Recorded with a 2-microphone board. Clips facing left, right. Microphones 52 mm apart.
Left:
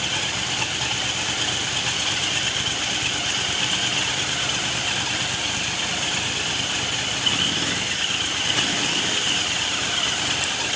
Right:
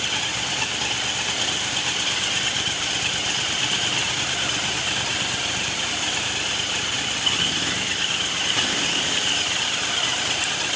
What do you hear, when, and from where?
Only background noise.